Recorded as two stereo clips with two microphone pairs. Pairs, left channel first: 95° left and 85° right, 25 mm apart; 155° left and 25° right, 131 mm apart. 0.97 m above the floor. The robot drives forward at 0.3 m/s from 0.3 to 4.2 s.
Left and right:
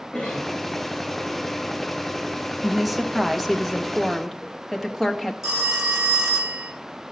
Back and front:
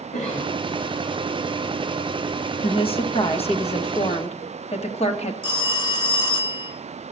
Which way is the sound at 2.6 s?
175° right.